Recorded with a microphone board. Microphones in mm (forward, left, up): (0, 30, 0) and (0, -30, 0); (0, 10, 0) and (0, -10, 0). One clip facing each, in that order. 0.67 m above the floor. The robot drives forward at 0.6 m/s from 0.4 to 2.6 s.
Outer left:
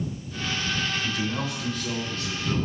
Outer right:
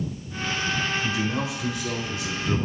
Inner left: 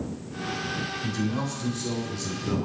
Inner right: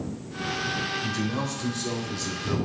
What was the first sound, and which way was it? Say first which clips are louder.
A man speaking: outer right 2 dB, even; 10° right (ahead or behind).